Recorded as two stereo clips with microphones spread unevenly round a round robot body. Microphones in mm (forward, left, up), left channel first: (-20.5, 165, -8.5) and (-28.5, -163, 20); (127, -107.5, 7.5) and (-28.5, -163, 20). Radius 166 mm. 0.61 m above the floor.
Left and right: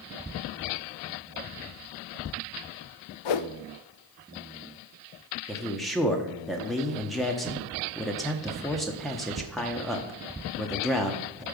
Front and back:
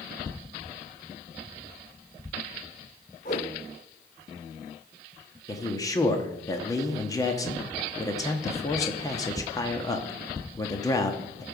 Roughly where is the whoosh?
Left.